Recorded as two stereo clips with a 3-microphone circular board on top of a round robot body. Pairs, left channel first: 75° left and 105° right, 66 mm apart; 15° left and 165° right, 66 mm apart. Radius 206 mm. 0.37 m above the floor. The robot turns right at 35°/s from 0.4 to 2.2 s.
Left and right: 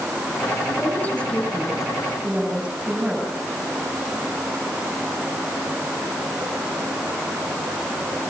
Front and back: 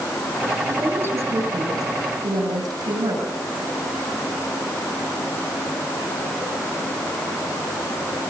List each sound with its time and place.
0.7 s a woman speaking: 130° left, 8 m; by 3.3 s straight behind, 8 m